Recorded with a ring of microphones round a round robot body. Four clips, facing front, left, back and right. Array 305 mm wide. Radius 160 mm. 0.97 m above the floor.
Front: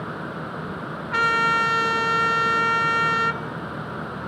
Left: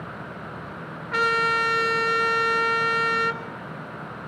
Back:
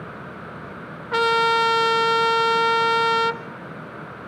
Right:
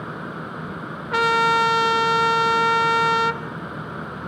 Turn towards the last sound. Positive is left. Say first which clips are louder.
# right 4 dB, back 3 dB
turn(degrees=-150)